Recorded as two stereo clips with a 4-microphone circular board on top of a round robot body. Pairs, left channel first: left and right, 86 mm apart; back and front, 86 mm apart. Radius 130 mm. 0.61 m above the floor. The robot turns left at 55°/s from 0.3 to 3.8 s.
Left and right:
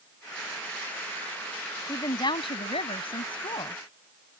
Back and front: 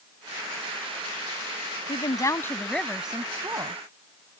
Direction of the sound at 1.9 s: 145° left.